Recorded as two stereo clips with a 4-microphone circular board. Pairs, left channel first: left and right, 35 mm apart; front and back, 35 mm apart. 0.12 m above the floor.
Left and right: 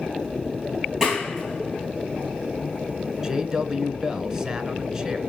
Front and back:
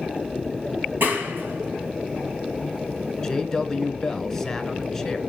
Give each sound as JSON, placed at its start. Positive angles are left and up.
{"t": 1.0, "sound": "a clap", "azimuth_deg": -170, "distance_m": 6.5}
{"t": 3.2, "sound": "a man speaking", "azimuth_deg": -55, "distance_m": 1.1}